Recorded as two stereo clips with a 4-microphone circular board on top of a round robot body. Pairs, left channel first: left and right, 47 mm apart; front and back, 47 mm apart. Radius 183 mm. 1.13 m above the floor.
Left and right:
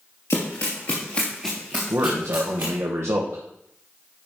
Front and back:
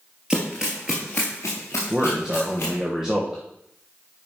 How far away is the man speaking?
About 1.4 m.